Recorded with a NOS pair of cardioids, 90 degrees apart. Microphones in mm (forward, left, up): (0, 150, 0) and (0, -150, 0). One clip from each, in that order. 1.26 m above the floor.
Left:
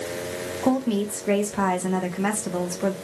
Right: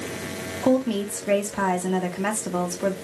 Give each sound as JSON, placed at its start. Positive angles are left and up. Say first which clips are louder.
{"t": 0.6, "sound": "a woman speaking", "louder": "right 2 dB", "azimuth_deg": -5, "distance_m": 1.5}